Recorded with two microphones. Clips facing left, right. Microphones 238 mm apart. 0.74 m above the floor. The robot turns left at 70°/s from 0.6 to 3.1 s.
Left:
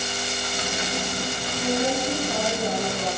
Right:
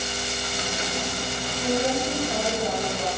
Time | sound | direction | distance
1.6 | a woman speaking | 120° right | 7 m